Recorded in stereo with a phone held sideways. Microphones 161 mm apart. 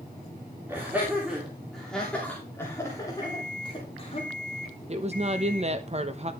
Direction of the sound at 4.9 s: 40° right (ahead or behind).